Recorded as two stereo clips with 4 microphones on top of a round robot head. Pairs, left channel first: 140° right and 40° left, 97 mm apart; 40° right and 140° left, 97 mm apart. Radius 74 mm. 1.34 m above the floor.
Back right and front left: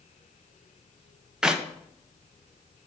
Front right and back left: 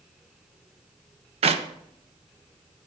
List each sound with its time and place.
1.4 s a clap: 120° left, 0.8 m